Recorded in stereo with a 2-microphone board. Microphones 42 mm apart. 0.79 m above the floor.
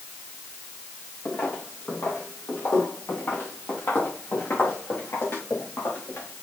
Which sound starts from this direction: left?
Footsteps, at 1.2 s.